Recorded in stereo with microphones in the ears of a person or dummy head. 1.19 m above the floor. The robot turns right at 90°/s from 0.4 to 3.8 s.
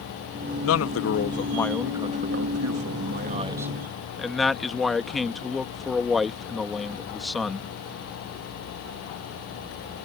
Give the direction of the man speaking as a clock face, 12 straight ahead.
9 o'clock.